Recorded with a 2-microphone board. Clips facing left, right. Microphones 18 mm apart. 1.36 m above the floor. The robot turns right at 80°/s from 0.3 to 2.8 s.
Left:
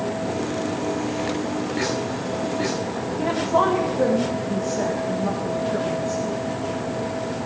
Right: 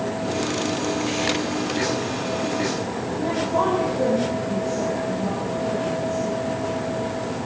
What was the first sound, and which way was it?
A woman speaking, 70° left (ahead or behind).